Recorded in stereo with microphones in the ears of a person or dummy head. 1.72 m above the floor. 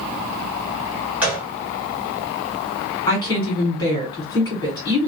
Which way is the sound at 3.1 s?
20° left (ahead or behind).